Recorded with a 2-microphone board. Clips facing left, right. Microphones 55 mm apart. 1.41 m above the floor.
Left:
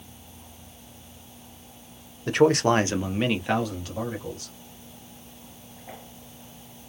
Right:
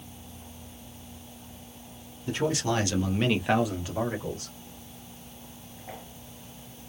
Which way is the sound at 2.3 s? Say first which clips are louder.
Left 8 dB; 70° left (ahead or behind).